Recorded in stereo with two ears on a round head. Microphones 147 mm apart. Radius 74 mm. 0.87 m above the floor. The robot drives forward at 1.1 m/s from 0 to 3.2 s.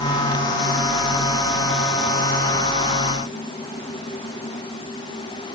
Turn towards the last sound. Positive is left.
No sound to turn to.